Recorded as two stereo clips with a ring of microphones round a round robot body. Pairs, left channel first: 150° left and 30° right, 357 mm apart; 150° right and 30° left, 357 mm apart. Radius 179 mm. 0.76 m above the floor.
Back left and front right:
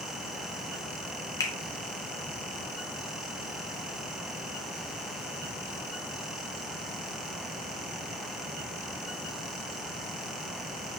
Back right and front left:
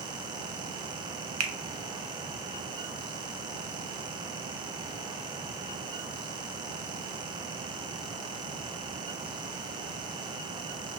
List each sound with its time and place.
1.4 s a finger snap: 70° left, 0.7 m